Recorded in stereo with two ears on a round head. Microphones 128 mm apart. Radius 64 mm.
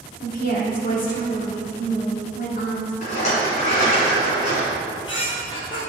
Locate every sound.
0.2 s a woman speaking: 60° left (ahead or behind), 2.0 m
3.0 s a rattle: 55° left (ahead or behind), 2.5 m
4.8 s a squeak: 35° left (ahead or behind), 2.5 m